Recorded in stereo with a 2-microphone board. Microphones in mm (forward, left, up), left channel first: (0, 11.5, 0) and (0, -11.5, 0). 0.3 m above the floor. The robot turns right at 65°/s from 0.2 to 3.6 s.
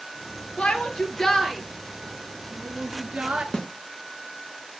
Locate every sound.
0.6 s a shout: 65° left (ahead or behind), 4 m; by 3.4 s 60° right (ahead or behind), 4 m
3.5 s a snare drum: 35° left (ahead or behind), 2 m; by 3.7 s 40° left (ahead or behind), 2 m